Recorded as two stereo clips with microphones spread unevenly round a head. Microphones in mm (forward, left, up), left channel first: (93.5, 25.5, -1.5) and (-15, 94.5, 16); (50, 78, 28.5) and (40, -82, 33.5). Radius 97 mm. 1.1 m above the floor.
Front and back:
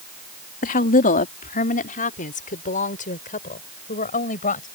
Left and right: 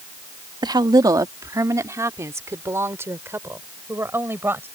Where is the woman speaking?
30° right; by 4.7 s 15° right.